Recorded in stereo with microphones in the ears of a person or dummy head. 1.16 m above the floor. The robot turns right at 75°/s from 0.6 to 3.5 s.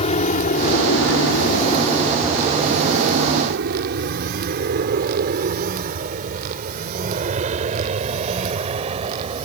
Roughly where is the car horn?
No car horn in this recording.